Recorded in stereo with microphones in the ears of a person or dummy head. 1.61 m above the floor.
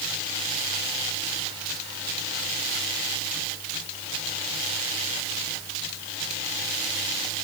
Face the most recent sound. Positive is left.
No sound to turn to.